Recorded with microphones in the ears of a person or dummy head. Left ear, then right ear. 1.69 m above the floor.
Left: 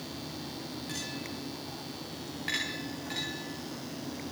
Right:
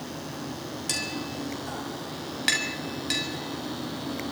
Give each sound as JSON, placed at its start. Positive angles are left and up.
{"t": 0.9, "sound": "tapping", "side_deg": -55, "distance_m": 7.5}